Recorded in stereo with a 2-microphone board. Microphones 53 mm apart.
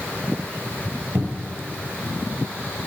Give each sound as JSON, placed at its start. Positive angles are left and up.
{"t": 1.1, "sound": "a cupboard door", "side_deg": -45, "distance_m": 1.4}